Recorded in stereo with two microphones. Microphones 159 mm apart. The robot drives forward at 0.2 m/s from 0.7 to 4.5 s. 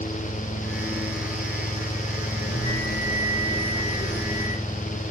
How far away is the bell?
About 5.5 m.